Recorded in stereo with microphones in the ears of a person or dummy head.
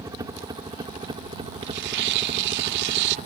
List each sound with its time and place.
0.0 s a helicopter: 20° right (ahead or behind); by 3.3 s 35° right (ahead or behind)
1.6 s tearing paper: 60° right (ahead or behind)